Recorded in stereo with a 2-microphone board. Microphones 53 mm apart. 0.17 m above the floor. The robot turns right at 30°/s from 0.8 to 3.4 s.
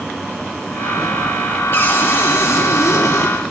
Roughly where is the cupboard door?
Ahead left.